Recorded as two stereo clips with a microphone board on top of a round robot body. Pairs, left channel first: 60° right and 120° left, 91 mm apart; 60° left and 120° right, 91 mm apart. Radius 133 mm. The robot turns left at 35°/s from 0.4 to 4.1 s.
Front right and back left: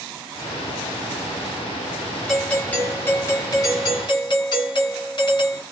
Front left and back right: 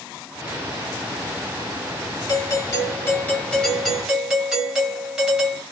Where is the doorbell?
25° left, 2.5 m; by 5.6 s 40° right, 2.5 m.